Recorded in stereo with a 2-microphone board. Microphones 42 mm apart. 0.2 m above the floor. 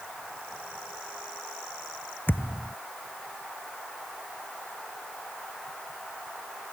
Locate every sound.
2.3 s a thud: 60° left (ahead or behind)